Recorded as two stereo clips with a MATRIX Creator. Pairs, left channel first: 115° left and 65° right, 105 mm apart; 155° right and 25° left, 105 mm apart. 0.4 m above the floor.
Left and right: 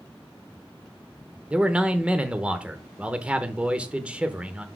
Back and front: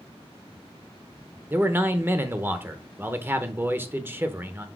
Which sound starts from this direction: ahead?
A man speaking, at 1.5 s.